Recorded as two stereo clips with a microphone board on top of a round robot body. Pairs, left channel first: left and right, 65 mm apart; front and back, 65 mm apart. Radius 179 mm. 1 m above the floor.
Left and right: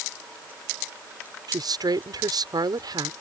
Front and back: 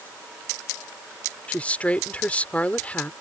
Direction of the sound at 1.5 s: 70° right.